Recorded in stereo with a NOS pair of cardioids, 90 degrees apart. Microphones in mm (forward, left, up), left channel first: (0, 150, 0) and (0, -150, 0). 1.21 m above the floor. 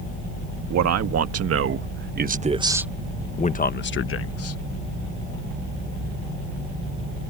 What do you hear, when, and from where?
0.7 s a man speaking: 60° right; by 4.6 s 55° left